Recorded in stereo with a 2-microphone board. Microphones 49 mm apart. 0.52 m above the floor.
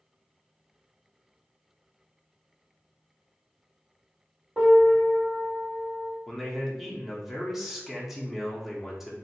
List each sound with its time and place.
4.6 s a piano: 40° right (ahead or behind), 1.9 m
6.3 s a man speaking: 5° right (ahead or behind), 0.7 m